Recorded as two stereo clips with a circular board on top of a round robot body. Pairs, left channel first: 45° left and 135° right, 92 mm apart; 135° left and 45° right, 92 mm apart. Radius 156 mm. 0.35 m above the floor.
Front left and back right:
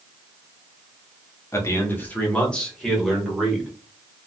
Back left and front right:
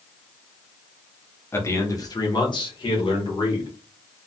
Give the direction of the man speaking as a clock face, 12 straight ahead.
9 o'clock.